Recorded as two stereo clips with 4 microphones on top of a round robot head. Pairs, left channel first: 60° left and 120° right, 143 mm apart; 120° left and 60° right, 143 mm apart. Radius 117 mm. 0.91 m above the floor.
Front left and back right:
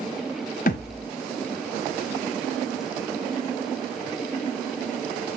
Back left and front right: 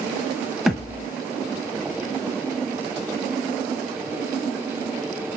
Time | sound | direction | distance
0.7 | a thud | 30° left | 0.9 m